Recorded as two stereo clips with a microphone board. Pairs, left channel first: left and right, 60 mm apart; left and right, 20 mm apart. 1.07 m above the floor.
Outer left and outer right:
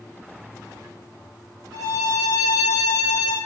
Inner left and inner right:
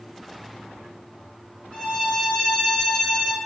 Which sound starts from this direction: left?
A violin, at 1.7 s.